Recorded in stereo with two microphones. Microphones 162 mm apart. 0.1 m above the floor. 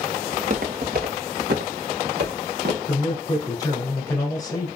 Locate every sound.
0.3 s footsteps: 50° right (ahead or behind), 1.2 m; by 2.8 s 80° right, 2 m
2.9 s a man speaking: 25° left (ahead or behind), 1.3 m